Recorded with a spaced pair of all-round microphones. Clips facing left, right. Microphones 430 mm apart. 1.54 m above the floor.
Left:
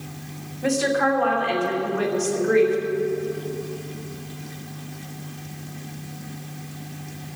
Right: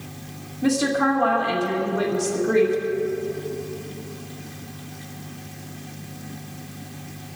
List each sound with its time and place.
0.6 s a woman speaking: 60° right (ahead or behind), 2.5 m